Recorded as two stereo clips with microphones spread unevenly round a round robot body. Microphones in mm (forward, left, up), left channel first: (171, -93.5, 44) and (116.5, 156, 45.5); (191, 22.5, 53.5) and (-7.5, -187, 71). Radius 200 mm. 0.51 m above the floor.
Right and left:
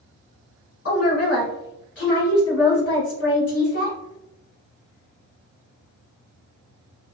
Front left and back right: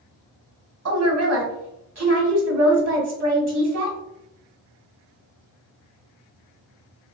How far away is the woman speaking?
About 1.4 m.